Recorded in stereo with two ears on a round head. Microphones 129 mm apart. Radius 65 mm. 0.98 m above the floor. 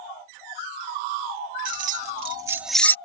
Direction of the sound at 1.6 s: 65° right (ahead or behind).